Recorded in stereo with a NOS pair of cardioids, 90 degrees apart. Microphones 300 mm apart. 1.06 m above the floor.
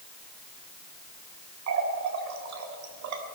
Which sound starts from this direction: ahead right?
A running tap, at 1.7 s.